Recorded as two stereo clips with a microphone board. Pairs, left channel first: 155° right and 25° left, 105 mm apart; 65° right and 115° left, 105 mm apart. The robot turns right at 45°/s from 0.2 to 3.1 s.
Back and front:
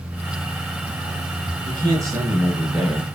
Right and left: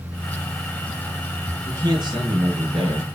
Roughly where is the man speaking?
Ahead left.